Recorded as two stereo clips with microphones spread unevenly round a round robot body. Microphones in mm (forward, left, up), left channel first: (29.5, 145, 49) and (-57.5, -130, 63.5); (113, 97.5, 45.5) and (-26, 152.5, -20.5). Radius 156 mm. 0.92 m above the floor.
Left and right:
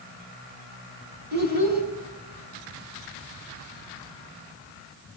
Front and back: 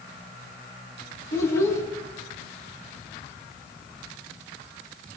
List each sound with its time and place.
1.3 s a child speaking: 50° right, 7.5 m